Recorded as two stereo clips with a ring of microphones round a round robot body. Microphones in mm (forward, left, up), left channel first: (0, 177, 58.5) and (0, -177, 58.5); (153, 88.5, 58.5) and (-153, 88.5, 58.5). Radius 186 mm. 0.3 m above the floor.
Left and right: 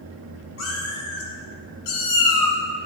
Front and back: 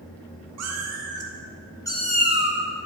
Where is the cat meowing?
145° left, 1.9 m; by 2.6 s 45° left, 1.8 m.